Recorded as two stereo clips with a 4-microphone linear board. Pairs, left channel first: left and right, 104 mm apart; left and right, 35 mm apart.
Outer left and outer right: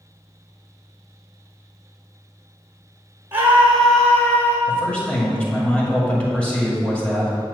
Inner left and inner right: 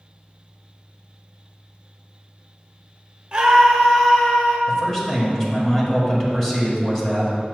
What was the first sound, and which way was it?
A scream, 20° right (ahead or behind).